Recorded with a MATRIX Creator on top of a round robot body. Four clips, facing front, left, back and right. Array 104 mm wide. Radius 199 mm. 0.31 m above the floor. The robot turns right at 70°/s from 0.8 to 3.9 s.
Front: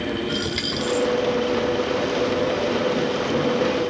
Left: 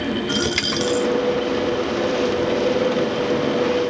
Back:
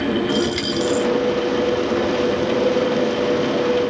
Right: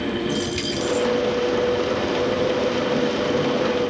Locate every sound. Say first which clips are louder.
0.3 s a dropped coin: left 2 dB, back 6 dB; 90° left, 1.4 m; by 1.1 s 110° left, 1.4 m